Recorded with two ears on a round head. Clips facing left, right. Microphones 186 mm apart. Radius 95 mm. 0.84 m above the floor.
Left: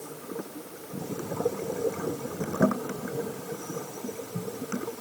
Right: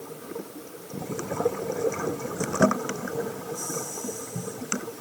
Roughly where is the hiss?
I don't hear a hiss.